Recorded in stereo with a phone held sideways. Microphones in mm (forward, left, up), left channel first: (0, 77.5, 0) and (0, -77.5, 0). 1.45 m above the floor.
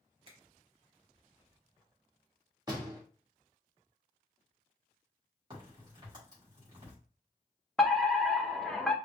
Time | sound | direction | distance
0.3 | a finger snap | 35° right (ahead or behind) | 1.4 m
2.7 | a door slam | 25° right (ahead or behind) | 1.7 m
5.5 | a crack | 30° right (ahead or behind) | 3 m
7.8 | a fire alarm | 5° left (ahead or behind) | 0.6 m